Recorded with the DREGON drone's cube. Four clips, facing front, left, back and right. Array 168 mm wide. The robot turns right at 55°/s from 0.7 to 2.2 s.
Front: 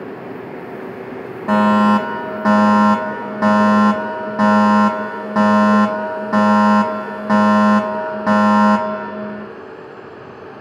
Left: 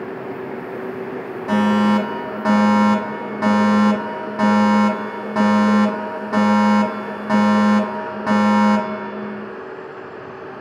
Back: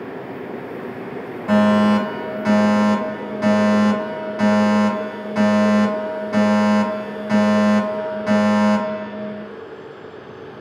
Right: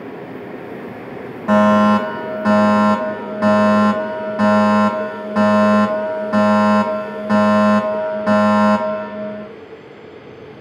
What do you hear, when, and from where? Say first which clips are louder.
1.5 s a fire alarm: right 5 dB, front 2 dB; 35° right, 2.5 m; by 9.5 s 5° left, 2.5 m